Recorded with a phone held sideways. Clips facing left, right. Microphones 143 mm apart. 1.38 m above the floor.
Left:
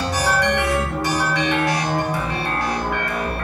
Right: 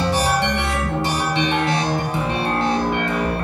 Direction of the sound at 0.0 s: 25° right (ahead or behind).